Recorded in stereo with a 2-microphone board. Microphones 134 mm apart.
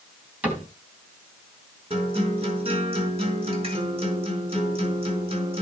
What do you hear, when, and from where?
0.4 s a cupboard door: 10° right (ahead or behind), 3 m
1.9 s a guitar: 45° right (ahead or behind), 4 m